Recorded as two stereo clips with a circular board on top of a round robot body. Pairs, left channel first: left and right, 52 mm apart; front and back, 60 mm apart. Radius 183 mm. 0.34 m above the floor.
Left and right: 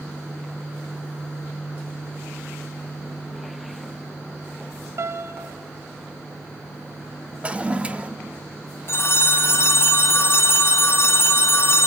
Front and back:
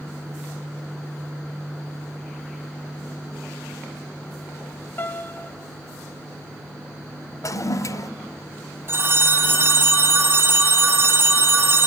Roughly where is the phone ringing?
Behind left.